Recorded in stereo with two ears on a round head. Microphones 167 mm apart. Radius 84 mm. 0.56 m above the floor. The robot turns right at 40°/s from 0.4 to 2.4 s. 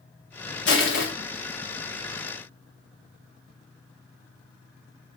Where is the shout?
I don't hear a shout.